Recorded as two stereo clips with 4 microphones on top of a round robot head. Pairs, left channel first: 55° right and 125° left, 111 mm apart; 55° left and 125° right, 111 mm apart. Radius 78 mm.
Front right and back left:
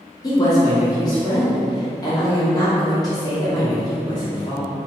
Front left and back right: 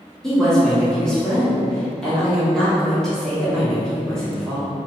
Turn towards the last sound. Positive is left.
turn(degrees=-25)